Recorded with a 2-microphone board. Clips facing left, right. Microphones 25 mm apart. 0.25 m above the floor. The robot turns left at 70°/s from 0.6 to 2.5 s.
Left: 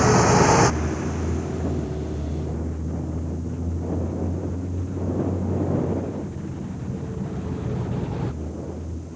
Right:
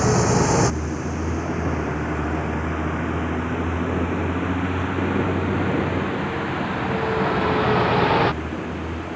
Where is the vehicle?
15° left (ahead or behind); by 9.2 s 75° right (ahead or behind).